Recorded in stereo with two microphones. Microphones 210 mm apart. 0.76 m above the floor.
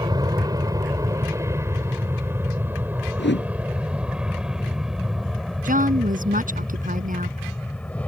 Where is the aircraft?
20° right (ahead or behind); by 8.1 s 5° left (ahead or behind).